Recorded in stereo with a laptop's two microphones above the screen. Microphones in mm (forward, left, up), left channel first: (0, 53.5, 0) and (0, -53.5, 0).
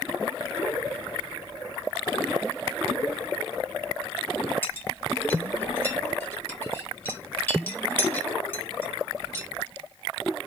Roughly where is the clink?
Left.